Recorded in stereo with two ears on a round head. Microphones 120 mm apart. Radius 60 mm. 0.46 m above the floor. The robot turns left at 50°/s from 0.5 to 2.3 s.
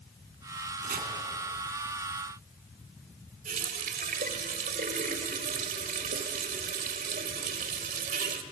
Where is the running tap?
65° right (ahead or behind), 1.3 m.